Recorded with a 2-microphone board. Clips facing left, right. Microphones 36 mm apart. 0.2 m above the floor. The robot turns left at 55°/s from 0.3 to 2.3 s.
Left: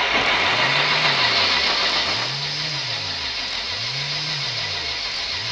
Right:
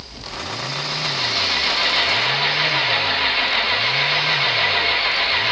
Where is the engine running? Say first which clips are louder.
Left 14 dB; 70° left; by 5.5 s 40° right.